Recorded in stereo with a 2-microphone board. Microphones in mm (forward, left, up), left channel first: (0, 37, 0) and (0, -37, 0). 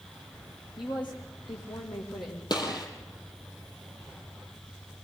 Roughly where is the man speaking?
Left.